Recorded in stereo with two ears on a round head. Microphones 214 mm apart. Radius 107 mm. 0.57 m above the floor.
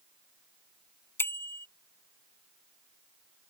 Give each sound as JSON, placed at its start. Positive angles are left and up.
{"t": 1.2, "sound": "a bicycle bell", "side_deg": 10}